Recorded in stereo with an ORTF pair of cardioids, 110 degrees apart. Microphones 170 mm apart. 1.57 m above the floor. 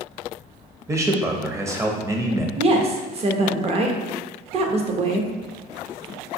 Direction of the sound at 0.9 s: 20° right.